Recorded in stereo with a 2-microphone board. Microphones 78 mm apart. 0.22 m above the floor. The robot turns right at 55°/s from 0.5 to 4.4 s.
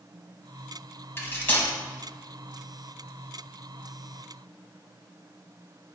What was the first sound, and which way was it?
Cutlery clinking, 30° left (ahead or behind).